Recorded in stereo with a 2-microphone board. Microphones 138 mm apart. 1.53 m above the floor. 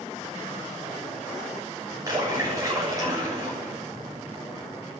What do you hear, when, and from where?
2.1 s a splash: 25° right (ahead or behind), 7.5 m